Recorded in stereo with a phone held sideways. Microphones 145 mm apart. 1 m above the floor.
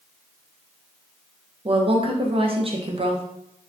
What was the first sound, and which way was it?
A woman speaking, 40° right (ahead or behind).